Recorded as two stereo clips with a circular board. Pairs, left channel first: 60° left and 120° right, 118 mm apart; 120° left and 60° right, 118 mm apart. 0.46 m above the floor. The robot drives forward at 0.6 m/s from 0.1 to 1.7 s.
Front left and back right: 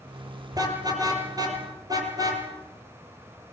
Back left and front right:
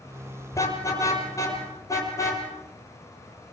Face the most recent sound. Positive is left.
turn(degrees=-175)